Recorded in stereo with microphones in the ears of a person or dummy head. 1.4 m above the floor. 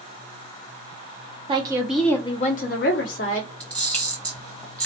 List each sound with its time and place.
1.5 s a woman speaking: 25° right (ahead or behind), 0.7 m; by 3.5 s 70° left (ahead or behind), 1.2 m
3.6 s a camera shutter: 10° left (ahead or behind), 1.1 m